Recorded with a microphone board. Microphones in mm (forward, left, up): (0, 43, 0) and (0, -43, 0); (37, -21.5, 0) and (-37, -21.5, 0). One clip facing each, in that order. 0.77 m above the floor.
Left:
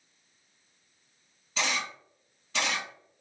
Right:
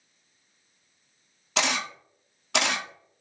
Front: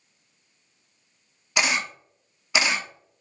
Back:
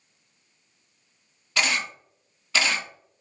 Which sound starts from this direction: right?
A camera shutter, at 1.6 s.